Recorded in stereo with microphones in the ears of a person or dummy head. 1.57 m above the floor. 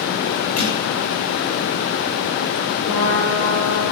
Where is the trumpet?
70° left (ahead or behind), 8 m.